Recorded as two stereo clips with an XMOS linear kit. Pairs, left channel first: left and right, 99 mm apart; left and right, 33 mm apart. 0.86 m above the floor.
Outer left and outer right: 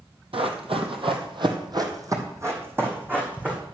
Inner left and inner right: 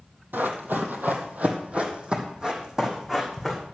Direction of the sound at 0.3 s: 65° right (ahead or behind).